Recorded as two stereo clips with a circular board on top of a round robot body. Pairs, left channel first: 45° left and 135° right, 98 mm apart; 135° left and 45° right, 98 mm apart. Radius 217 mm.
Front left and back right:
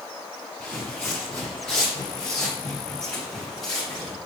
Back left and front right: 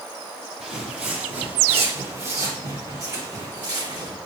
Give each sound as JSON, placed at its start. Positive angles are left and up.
{"t": 0.6, "sound": "footsteps", "azimuth_deg": -30, "distance_m": 1.1}